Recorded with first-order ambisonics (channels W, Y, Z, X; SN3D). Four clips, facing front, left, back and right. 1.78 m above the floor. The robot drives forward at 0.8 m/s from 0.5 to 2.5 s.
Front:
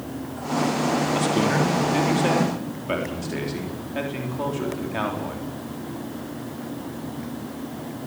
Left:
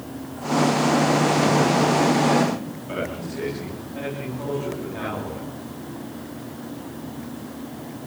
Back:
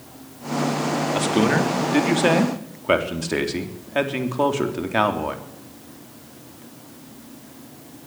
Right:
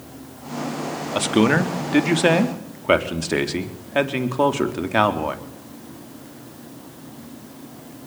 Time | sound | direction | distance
1.1 | a man speaking | 100° right | 3.5 m